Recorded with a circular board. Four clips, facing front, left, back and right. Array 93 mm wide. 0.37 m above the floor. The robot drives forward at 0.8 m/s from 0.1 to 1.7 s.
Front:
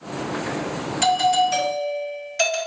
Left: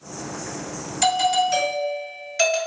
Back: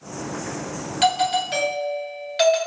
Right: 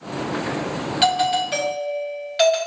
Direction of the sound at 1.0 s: 110° right.